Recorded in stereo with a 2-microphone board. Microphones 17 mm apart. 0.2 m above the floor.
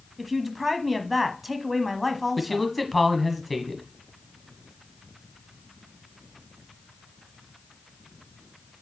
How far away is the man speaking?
About 1.3 m.